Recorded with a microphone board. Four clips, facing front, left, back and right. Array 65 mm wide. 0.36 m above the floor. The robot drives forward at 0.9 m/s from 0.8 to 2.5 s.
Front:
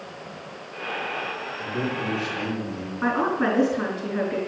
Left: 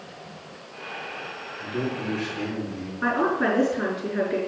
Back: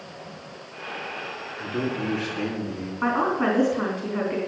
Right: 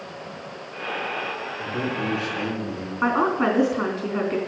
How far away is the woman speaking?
About 3 m.